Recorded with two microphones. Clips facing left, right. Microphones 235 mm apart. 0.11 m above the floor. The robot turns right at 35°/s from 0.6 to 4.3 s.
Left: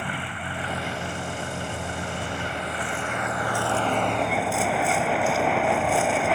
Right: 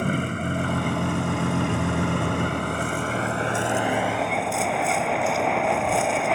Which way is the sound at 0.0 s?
130° right.